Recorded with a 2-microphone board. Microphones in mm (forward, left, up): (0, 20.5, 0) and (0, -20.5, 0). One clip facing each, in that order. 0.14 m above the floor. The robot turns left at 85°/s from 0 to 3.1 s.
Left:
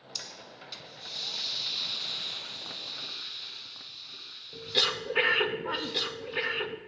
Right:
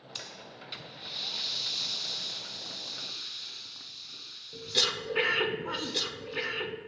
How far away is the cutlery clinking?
No cutlery clinking in this recording.